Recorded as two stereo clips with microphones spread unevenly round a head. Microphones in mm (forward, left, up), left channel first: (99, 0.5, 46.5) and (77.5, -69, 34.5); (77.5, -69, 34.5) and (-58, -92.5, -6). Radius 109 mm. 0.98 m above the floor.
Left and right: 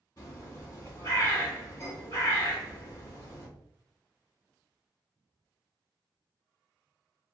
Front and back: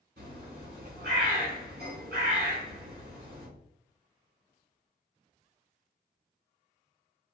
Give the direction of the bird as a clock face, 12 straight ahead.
7 o'clock.